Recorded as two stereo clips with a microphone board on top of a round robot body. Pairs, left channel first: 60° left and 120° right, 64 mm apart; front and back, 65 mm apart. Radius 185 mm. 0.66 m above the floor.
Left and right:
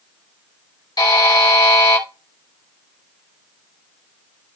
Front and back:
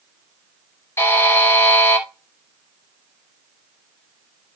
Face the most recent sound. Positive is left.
turn(degrees=55)